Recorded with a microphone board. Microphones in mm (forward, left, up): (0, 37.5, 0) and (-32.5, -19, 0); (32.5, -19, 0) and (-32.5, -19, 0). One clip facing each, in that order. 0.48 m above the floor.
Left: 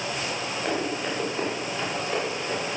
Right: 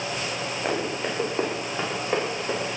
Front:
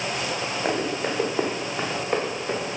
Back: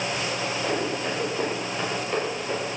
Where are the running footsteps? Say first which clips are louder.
Right 1 dB, front 3 dB; 50° right, 4 m; by 2.8 s 70° right, 4 m.